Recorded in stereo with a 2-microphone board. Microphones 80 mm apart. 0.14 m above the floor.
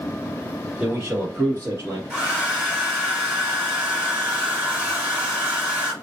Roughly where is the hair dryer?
Centre.